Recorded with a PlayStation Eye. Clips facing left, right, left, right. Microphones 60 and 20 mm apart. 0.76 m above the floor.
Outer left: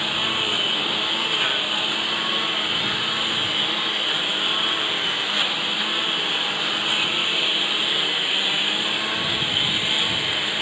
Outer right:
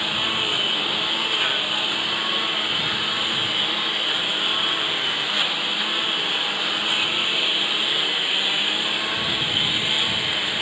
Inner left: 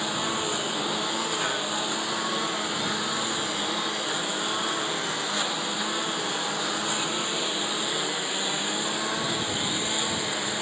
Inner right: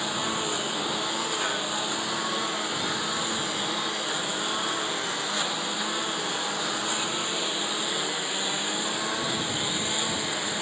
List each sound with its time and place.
0.0 s a lawn mower: centre (ahead or behind)